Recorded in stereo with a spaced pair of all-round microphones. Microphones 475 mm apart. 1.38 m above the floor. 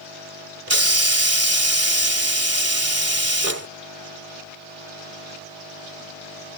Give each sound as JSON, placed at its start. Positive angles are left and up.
{"t": 0.7, "sound": "a hiss", "side_deg": -30}